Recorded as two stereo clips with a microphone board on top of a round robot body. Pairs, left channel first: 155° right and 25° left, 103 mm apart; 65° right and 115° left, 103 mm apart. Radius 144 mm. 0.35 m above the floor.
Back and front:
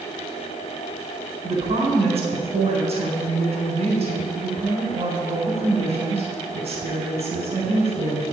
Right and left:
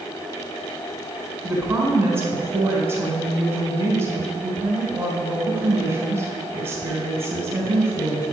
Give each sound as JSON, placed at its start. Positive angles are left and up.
{"t": 1.4, "sound": "a woman speaking", "azimuth_deg": 40, "distance_m": 4.0}